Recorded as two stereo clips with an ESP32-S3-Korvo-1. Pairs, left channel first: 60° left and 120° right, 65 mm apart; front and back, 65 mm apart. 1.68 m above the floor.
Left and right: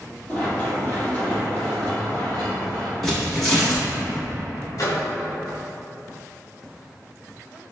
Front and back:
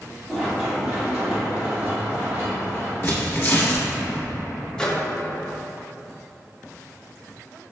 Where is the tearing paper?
25° right, 1.1 m.